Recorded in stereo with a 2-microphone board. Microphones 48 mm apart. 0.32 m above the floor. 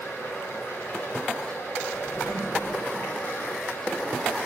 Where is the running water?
50° left (ahead or behind), 7 m.